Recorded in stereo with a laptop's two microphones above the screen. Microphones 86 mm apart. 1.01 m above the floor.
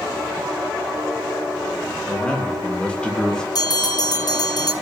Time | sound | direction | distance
2.1 | a man speaking | 15° left (ahead or behind) | 0.9 m
3.5 | a bell | 50° left (ahead or behind) | 0.6 m